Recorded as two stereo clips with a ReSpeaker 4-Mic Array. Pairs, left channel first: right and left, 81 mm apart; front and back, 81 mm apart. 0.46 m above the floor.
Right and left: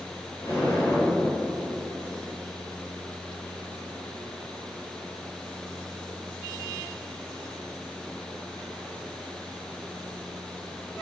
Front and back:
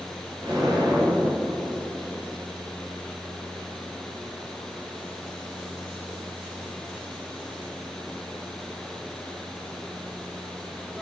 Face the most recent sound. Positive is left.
turn(degrees=-135)